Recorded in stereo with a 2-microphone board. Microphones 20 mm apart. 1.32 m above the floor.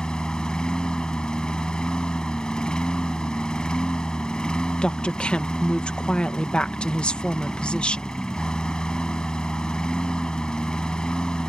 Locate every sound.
0.0 s a lawn mower: 50° left (ahead or behind)
4.8 s a woman speaking: 65° left (ahead or behind)